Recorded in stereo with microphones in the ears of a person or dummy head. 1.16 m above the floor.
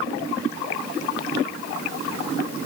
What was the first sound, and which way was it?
Only background noise.